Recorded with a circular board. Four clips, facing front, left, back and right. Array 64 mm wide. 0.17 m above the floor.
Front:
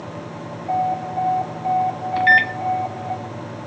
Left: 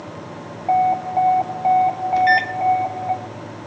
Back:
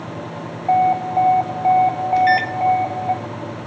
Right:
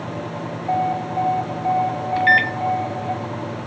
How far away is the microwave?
About 1.2 m.